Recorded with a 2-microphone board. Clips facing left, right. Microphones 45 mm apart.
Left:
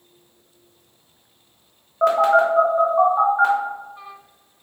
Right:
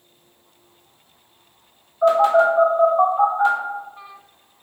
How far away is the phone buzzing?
About 0.7 m.